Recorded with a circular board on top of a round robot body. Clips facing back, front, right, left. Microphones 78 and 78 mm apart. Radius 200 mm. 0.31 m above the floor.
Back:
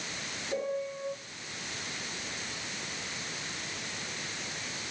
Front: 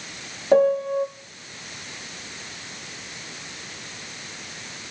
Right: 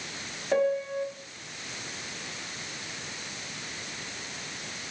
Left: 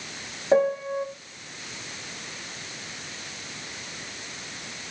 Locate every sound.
0.5 s a piano: 20° left, 2.0 m